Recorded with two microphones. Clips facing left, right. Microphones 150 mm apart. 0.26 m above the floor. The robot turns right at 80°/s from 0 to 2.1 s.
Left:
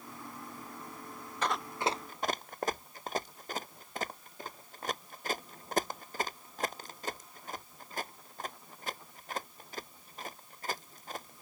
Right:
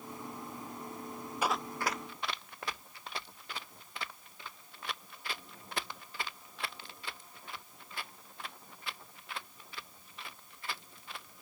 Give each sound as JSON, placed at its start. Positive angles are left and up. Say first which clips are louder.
{"t": 1.4, "sound": "running footsteps", "louder": "left 1 dB", "side_deg": -10}